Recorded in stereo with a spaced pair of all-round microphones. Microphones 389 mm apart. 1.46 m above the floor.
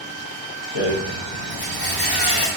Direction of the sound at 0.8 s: 80° left.